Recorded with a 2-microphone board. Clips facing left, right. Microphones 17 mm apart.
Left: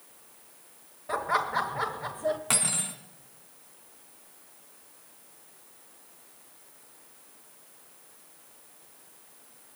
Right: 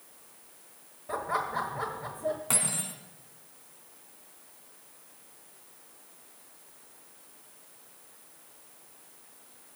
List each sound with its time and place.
1.1 s laughter: 40° left (ahead or behind), 1.1 m
2.5 s cutlery clinking: 30° left (ahead or behind), 1.5 m